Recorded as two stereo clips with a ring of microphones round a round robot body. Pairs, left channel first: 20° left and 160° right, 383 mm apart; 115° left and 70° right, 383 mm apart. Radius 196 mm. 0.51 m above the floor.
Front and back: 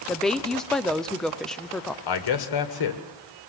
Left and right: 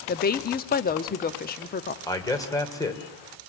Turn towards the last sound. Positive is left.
turn(degrees=30)